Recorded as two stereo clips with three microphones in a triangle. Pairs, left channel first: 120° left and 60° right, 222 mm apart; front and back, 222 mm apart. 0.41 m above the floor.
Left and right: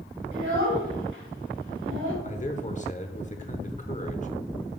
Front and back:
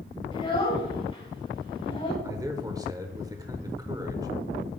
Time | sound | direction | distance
0.3 | a child speaking | 65° right | 1.8 m
2.2 | a man speaking | 120° left | 0.9 m